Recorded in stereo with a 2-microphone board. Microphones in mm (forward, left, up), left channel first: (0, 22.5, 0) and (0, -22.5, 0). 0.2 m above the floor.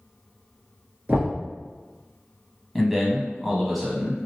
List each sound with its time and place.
1.1 s knocking: 45° right (ahead or behind), 2 m
2.8 s a man speaking: centre (ahead or behind), 1.0 m